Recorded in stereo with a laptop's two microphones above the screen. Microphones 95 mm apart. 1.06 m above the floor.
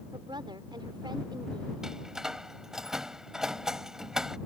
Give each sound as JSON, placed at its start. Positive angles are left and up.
{"t": 0.1, "sound": "a woman speaking", "side_deg": -50}
{"t": 1.8, "sound": "a door slam", "side_deg": -5}